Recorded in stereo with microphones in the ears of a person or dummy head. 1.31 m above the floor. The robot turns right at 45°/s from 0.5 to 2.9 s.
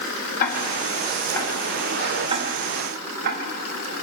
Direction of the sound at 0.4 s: 45° left (ahead or behind).